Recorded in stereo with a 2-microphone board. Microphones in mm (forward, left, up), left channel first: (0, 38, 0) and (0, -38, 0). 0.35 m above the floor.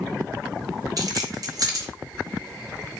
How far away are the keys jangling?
About 1.2 m.